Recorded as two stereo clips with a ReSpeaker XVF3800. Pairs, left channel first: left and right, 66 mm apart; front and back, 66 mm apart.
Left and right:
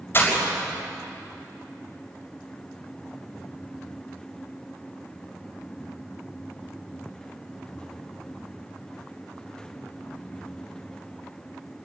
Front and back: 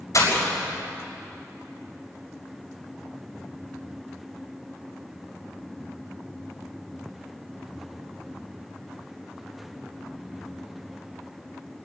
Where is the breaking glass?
35° left, 5.5 m.